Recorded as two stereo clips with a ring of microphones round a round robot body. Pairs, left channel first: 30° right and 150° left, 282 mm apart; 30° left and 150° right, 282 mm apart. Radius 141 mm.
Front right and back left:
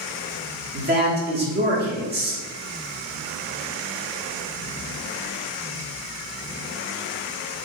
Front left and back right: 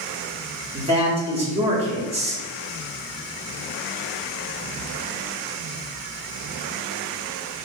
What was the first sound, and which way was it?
A man speaking, 160° left.